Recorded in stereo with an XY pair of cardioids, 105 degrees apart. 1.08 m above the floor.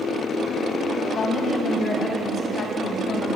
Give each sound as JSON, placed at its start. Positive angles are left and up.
{"t": 1.1, "sound": "a woman speaking", "azimuth_deg": 60, "distance_m": 4.5}